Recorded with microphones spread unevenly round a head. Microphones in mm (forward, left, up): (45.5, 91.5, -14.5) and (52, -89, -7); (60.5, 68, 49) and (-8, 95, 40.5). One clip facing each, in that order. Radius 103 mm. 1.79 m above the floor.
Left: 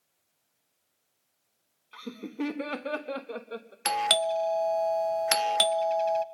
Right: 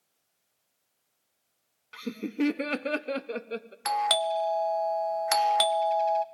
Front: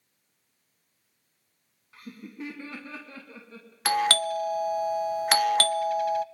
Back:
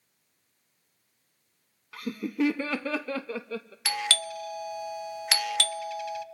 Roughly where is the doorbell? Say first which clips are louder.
Even, front 7 dB; ahead left.